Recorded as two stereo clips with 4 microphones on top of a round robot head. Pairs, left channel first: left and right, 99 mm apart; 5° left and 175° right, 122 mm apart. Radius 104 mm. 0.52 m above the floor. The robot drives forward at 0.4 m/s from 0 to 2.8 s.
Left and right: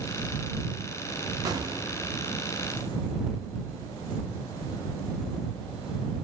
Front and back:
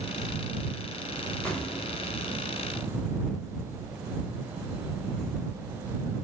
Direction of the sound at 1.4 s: 75° right.